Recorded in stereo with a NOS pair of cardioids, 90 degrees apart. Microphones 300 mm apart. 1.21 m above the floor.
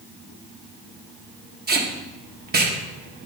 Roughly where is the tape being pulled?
Ahead right.